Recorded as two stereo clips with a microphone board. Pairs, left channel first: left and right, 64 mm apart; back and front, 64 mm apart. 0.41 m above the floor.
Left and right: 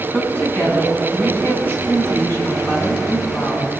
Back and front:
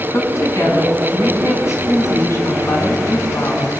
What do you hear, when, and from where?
0.1 s a woman speaking: 145° left, 4.5 m